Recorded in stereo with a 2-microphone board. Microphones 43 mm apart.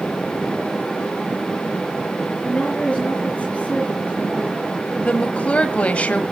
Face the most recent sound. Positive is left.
turn(degrees=30)  # may be behind; listen again after turning